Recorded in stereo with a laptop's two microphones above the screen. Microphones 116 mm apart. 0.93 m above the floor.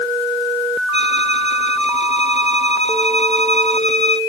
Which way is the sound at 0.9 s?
65° left (ahead or behind).